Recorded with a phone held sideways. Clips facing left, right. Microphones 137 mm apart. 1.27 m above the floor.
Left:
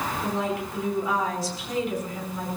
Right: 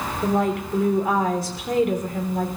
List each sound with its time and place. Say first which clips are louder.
0.2 s a woman speaking: right 9 dB; 55° right (ahead or behind), 3.5 m